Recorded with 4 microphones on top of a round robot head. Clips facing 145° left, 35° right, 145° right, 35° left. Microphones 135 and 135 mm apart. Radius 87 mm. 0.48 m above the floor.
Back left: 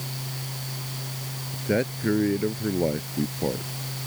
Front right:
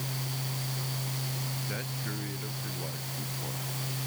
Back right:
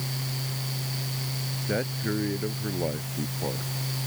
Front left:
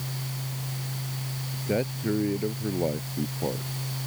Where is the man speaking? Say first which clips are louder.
Back left 13 dB, front left 3 dB; 115° left.